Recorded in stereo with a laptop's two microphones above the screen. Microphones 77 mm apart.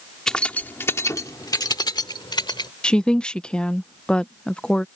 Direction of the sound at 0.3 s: 10° left (ahead or behind).